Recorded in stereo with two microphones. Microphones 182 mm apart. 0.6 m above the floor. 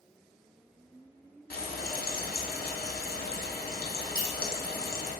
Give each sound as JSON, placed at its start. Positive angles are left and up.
{"t": 1.5, "sound": "frying", "side_deg": 60, "distance_m": 0.6}
{"t": 4.2, "sound": "a clink", "side_deg": 15, "distance_m": 1.3}